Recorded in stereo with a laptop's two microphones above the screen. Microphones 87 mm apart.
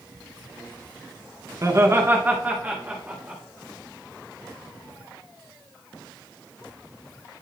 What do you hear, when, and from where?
1.6 s laughter: 35° right (ahead or behind), 0.6 m; by 3.4 s 15° right (ahead or behind), 2 m